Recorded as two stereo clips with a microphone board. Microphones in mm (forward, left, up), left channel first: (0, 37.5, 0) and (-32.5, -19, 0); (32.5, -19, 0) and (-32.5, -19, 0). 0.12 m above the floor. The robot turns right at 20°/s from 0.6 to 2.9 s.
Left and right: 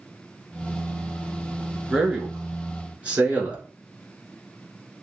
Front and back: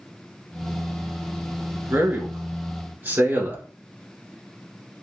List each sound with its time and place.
1.9 s a man speaking: 165° left, 1.4 m; by 3.6 s 175° right, 1.4 m